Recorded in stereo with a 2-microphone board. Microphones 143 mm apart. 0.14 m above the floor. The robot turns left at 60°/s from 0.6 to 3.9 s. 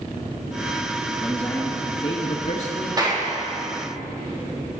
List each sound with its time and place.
1.2 s a man speaking: straight behind, 2.5 m; by 2.9 s 80° left, 2.5 m
3.0 s a clap: 30° right (ahead or behind), 4.5 m; by 3.3 s 45° right (ahead or behind), 4.5 m